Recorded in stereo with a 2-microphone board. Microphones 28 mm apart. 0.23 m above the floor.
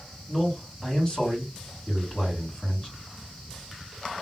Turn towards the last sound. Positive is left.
turn(degrees=20)  # may be behind; listen again after turning